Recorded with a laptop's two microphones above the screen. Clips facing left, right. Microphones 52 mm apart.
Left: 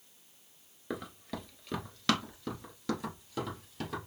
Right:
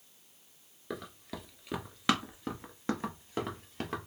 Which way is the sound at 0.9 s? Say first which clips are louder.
Left 2 dB; 5° left (ahead or behind).